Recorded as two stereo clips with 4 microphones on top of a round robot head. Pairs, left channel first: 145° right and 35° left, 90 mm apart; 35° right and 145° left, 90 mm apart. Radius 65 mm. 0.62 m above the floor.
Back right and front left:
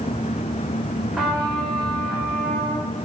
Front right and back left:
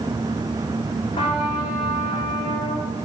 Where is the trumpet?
55° right, 3 m.